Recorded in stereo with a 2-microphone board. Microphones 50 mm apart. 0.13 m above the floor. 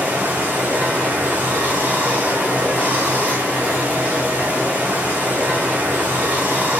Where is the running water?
30° right (ahead or behind), 1.9 m.